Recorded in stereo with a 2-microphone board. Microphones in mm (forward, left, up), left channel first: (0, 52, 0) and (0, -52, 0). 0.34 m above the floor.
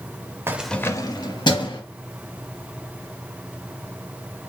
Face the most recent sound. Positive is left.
turn(degrees=50)  # may be behind; listen again after turning